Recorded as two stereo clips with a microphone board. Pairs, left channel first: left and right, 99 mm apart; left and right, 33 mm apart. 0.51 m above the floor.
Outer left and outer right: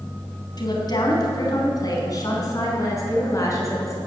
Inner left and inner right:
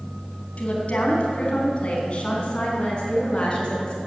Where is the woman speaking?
50° left (ahead or behind), 3.5 m; by 4.0 s 35° left (ahead or behind), 5 m.